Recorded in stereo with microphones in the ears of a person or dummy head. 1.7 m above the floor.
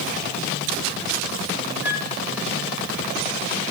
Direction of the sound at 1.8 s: 15° right (ahead or behind).